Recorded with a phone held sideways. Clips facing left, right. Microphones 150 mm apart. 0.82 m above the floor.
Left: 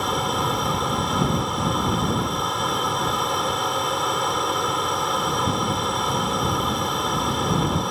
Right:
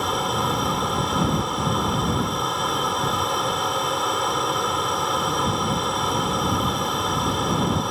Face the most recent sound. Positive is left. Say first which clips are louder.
# even
turn(degrees=0)  # may be behind; listen again after turning